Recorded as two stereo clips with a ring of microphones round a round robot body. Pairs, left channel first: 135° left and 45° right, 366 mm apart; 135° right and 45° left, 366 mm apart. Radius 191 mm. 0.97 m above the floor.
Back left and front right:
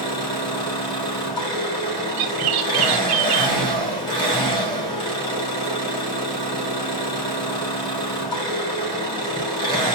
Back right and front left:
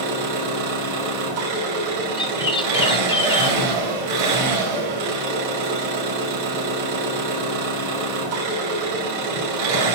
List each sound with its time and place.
0.0 s an engine running: 55° left, 3.5 m
2.2 s a bird: 60° right, 0.9 m